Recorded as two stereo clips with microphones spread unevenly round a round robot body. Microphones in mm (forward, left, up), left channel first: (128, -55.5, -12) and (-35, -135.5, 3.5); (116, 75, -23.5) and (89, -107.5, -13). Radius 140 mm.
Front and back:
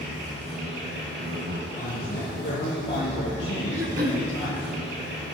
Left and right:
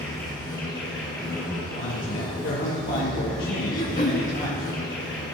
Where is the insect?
160° left, 2.5 m.